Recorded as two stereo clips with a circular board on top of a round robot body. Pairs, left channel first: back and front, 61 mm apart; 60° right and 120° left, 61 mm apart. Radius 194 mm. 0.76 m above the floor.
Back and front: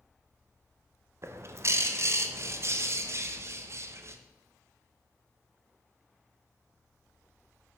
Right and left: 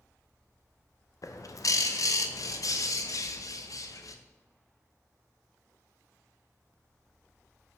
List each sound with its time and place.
1.2 s a bird: 40° right, 0.7 m